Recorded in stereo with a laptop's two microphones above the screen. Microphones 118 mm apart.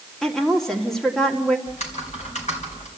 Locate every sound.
0.2 s a woman speaking: 5° left (ahead or behind), 1.9 m
1.7 s typing on a keyboard: 90° left, 3.5 m